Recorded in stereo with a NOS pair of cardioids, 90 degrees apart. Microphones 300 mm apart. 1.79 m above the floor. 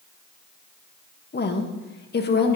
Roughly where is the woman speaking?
Ahead left.